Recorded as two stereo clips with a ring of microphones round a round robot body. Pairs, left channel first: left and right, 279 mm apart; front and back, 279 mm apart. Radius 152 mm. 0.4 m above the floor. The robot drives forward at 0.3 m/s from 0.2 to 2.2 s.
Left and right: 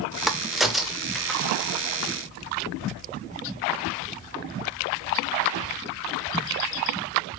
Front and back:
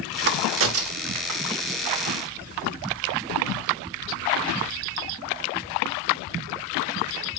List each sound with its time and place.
0.3 s a crack: straight behind, 0.6 m